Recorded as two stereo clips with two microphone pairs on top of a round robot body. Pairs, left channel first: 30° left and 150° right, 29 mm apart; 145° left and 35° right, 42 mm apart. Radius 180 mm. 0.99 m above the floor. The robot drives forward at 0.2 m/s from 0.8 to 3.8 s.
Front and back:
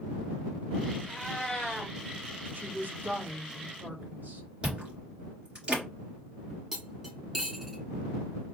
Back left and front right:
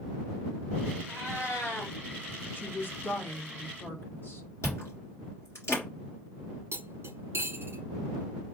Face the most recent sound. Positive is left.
turn(degrees=-75)